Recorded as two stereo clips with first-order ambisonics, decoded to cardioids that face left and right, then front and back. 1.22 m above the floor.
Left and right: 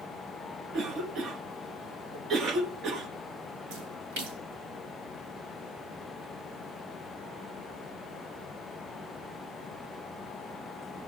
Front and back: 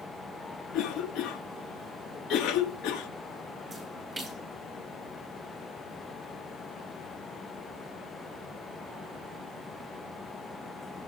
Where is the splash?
105° right, 5.5 m.